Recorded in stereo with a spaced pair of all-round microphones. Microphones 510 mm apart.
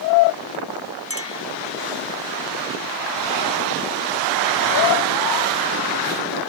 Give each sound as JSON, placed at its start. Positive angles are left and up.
{"t": 1.1, "sound": "a clink", "side_deg": -30}